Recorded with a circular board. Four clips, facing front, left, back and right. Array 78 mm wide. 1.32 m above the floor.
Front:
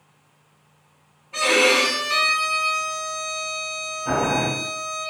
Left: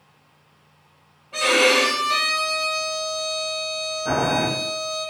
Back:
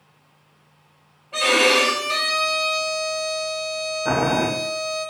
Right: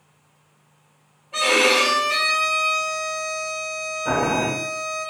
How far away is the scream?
No scream in this recording.